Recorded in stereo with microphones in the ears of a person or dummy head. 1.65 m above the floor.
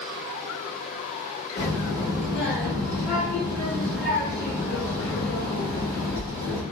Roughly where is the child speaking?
Left.